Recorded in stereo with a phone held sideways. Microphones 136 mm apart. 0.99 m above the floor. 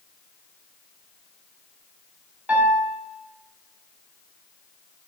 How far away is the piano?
About 1.6 m.